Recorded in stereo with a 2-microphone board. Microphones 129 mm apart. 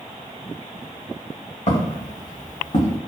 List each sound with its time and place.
1.7 s footsteps: 55° left (ahead or behind), 1.9 m; by 3.0 s 50° left (ahead or behind), 1.1 m